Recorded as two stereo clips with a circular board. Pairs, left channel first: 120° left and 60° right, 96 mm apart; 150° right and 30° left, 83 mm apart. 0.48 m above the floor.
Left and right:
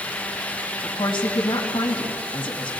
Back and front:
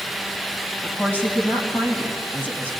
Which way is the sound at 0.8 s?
140° left.